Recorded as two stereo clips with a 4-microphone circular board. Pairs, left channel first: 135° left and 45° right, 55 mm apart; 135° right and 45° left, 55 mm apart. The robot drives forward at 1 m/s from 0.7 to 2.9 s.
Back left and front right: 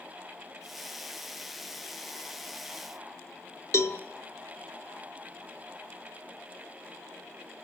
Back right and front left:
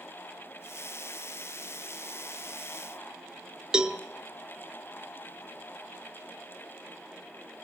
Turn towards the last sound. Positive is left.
turn(degrees=120)